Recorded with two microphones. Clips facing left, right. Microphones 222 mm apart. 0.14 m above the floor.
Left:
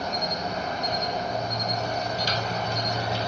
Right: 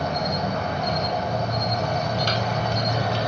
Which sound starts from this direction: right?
An insect, at 0.0 s.